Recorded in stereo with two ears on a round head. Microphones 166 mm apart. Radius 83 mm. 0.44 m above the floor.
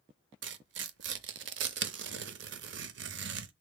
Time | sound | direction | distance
0.4 | tearing paper | 65° right (ahead or behind) | 0.7 m